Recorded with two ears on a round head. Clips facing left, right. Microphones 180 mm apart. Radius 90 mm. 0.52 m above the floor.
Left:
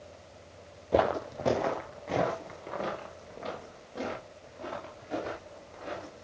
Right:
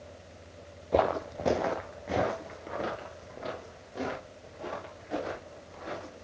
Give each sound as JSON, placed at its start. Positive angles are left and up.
{"t": 0.9, "sound": "footsteps", "side_deg": 5, "distance_m": 0.6}